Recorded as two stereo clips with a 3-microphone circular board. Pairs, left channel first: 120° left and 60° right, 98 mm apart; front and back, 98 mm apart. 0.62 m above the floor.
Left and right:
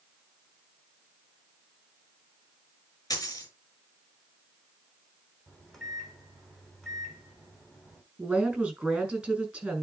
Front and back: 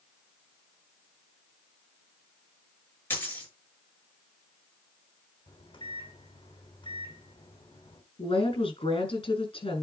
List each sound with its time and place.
3.1 s a dropped coin: 65° left, 5 m
5.5 s a microwave: 35° left, 3 m
8.2 s a woman speaking: 20° left, 5 m